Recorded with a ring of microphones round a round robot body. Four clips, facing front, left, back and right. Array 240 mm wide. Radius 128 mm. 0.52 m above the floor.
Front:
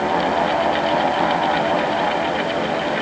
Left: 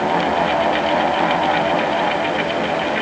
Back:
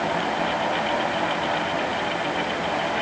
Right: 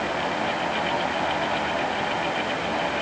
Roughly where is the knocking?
No knocking in this recording.